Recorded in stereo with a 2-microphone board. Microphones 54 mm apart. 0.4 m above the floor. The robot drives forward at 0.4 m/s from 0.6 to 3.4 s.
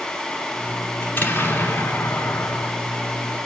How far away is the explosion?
About 1.2 m.